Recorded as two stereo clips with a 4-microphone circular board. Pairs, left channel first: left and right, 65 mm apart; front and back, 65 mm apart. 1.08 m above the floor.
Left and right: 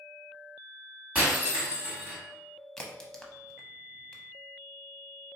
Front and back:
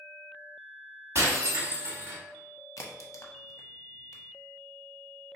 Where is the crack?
10° left, 0.6 m.